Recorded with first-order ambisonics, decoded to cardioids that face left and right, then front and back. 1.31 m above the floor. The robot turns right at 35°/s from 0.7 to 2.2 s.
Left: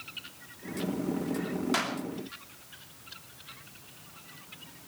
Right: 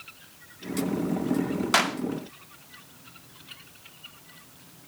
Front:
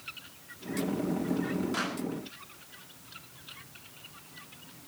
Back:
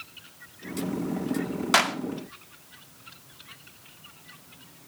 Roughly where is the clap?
Behind right.